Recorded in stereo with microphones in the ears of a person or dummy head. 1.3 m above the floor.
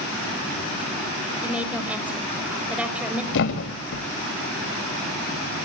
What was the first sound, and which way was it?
A woman speaking, 5° right (ahead or behind).